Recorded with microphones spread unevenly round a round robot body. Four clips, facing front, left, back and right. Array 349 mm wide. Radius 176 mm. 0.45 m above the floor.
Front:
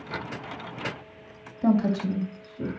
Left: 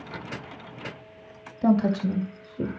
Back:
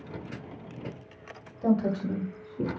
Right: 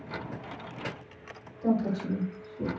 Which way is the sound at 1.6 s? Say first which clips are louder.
Left 6 dB, front 3 dB; 65° left.